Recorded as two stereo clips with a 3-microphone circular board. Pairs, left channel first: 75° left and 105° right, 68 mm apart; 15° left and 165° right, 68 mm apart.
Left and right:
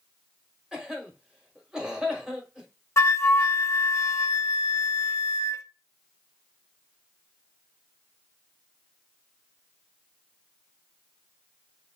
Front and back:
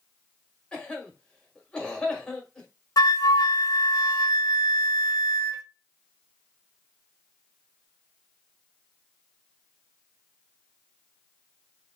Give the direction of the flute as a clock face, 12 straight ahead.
11 o'clock.